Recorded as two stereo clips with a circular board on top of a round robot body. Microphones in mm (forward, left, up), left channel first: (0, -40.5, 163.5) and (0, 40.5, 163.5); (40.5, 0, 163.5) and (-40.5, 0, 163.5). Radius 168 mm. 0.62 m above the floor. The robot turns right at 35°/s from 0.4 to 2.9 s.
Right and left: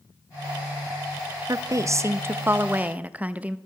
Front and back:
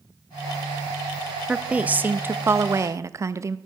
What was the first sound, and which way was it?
A woman speaking, 105° left.